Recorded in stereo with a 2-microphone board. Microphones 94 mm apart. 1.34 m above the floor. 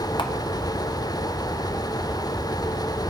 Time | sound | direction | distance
0.2 | a camera shutter | 55° left (ahead or behind) | 0.7 m